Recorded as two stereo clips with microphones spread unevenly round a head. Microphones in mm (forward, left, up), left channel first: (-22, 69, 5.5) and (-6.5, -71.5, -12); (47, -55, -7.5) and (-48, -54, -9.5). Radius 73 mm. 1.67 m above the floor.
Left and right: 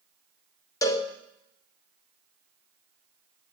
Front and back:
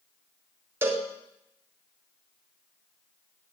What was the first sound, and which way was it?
A cowbell, 130° left.